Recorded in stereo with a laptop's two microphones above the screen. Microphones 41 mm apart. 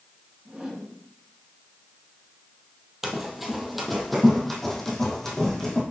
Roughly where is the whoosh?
Centre.